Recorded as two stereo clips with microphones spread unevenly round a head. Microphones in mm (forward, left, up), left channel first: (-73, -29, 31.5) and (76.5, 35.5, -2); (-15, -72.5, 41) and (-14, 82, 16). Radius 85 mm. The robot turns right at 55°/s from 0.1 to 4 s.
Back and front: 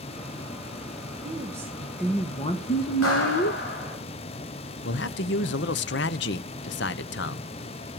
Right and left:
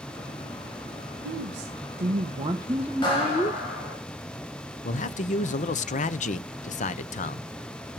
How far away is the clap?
About 8 m.